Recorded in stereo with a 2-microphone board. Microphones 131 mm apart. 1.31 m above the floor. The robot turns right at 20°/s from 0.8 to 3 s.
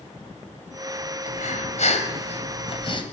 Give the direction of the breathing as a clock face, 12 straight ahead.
9 o'clock.